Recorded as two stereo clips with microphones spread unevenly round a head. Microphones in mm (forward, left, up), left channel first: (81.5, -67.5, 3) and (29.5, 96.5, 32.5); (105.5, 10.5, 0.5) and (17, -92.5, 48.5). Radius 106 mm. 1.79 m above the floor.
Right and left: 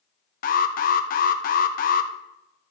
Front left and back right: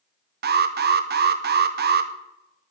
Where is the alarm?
115° right, 0.9 m.